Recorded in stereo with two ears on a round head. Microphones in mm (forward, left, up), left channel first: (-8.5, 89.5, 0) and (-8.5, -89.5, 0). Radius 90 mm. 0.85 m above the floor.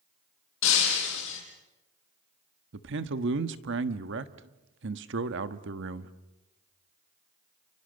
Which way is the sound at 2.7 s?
65° right (ahead or behind).